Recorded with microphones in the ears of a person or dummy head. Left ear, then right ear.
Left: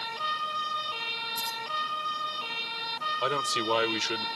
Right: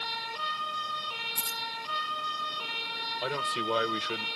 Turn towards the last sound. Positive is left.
turn(degrees=25)  # may be behind; listen again after turning